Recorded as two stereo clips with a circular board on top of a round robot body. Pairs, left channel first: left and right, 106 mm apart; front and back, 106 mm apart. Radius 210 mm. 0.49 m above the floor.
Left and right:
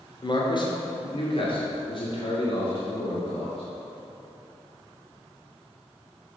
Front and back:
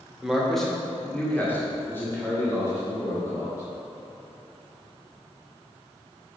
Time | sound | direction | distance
0.2 | a man speaking | 95° left | 1.4 m